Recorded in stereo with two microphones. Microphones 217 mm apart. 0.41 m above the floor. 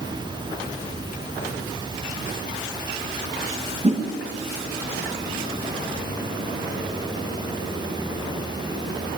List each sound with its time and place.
3.8 s a whoosh: 25° right (ahead or behind), 1.3 m